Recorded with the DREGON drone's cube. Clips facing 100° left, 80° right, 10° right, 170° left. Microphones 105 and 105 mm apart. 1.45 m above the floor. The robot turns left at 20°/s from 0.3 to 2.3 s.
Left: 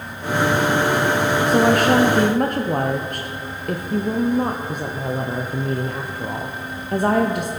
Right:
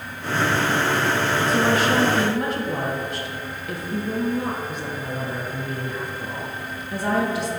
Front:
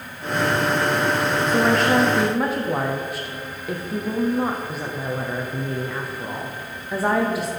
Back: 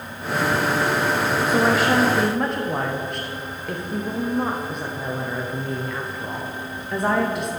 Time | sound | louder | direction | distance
1.5 | a woman speaking | left 5 dB, front 1 dB | 90° left | 0.6 m